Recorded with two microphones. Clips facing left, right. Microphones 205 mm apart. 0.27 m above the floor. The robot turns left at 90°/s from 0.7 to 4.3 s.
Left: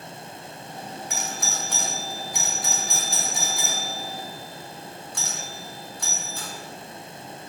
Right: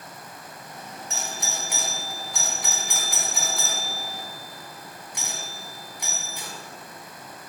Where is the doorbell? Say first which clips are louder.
Right 1 dB; 30° right (ahead or behind), 1.7 m; by 6.5 s 15° right (ahead or behind), 1.7 m.